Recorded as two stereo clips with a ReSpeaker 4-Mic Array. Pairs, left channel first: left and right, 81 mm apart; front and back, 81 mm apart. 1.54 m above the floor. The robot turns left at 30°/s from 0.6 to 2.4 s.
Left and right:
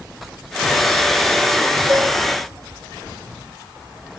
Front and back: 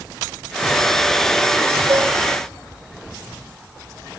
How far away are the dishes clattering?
About 1.5 m.